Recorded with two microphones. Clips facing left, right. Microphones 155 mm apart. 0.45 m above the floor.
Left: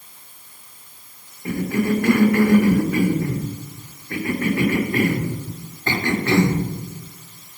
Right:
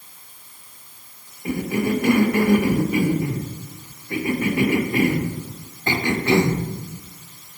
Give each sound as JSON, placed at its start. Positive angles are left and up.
{"t": 1.4, "sound": "a cough", "side_deg": -15, "distance_m": 0.9}